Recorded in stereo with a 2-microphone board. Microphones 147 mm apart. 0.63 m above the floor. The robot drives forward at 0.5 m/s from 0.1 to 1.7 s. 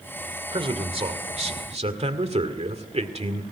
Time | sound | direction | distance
0.5 | a man speaking | 40° right (ahead or behind) | 2.5 m